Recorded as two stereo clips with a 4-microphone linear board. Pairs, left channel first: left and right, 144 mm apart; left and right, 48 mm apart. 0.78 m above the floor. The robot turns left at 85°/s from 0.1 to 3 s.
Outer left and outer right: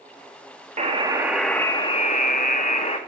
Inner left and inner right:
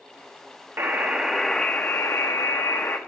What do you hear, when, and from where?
0.8 s a buzzer: 125° right, 0.6 m; by 3.0 s 45° left, 0.6 m